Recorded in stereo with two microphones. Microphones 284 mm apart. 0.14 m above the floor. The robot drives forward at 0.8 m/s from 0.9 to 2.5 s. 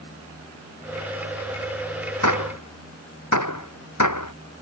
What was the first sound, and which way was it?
A gunshot, 85° left.